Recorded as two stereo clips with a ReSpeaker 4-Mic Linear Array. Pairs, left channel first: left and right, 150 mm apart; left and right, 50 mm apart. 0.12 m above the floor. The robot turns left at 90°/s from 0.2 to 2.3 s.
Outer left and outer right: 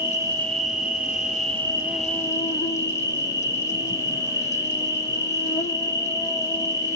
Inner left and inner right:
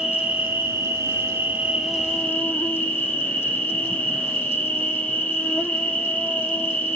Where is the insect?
15° right, 0.8 m; by 7.0 s 155° left, 0.8 m.